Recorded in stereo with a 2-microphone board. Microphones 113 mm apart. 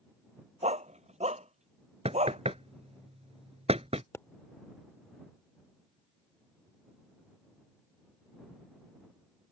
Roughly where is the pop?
Left.